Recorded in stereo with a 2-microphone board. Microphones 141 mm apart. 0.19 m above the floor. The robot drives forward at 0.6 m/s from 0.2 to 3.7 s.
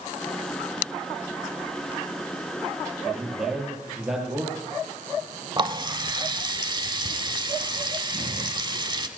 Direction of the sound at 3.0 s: 5° right (ahead or behind).